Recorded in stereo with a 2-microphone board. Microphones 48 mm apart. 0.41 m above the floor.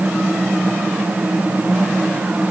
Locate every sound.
Only background noise.